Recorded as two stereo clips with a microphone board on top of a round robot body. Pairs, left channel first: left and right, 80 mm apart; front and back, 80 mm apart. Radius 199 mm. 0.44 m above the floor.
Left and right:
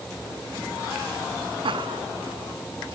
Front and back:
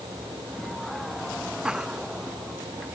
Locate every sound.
1.6 s laughter: 100° right; by 3.0 s 105° right